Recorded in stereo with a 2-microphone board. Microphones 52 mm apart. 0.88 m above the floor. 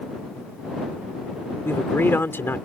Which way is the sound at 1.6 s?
50° left (ahead or behind).